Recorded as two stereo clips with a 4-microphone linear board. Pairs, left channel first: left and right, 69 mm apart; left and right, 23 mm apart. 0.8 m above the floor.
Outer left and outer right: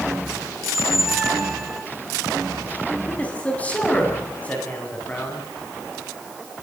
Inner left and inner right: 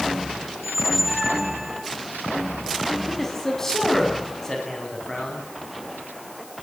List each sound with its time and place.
0.6 s a squeak: 5° right (ahead or behind), 3.5 m
3.1 s a man speaking: 20° left (ahead or behind), 8 m